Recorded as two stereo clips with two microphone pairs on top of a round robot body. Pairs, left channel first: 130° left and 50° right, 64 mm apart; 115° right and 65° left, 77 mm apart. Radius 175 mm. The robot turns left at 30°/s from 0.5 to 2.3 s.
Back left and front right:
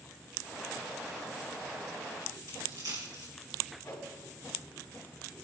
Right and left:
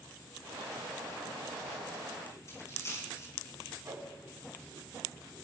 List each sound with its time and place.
2.5 s a dropped coin: 65° right, 3 m
3.9 s a whoosh: 105° left, 3 m